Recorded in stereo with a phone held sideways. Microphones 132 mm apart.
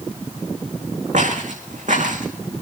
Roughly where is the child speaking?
No child speaking in this recording.